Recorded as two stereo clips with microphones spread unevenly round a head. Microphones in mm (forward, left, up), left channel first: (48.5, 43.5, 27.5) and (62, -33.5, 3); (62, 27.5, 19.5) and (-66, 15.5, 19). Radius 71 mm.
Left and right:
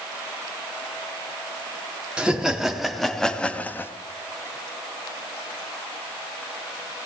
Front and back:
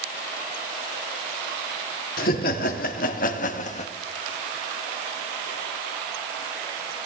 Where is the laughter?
5° right, 2.5 m; by 3.9 s 30° left, 1.3 m.